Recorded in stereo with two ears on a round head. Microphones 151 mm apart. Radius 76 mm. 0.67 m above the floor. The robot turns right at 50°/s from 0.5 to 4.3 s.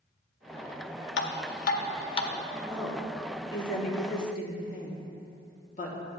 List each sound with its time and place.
1.2 s dripping: 75° left (ahead or behind), 0.6 m; by 2.3 s 25° left (ahead or behind), 0.6 m
2.6 s a woman speaking: 10° right (ahead or behind), 1.3 m; by 6.0 s 50° left (ahead or behind), 1.3 m